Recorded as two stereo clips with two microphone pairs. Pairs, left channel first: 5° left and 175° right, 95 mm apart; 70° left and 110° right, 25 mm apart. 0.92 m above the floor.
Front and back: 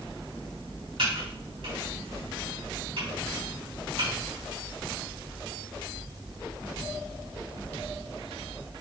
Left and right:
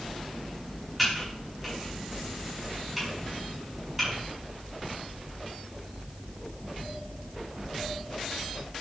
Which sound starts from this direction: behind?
Typing on a keyboard, at 1.0 s.